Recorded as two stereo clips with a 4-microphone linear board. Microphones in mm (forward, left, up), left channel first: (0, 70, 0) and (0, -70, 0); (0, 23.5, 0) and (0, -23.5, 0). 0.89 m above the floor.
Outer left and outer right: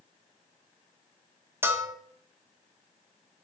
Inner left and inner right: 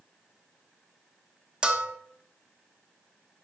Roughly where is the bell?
Centre.